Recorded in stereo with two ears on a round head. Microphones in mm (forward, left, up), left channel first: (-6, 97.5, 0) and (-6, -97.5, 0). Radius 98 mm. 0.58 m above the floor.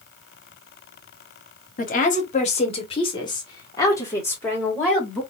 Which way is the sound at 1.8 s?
40° left (ahead or behind).